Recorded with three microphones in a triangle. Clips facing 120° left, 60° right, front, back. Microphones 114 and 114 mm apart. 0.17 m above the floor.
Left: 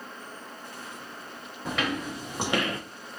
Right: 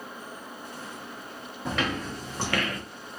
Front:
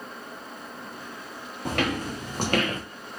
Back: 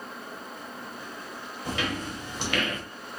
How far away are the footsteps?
About 1.8 m.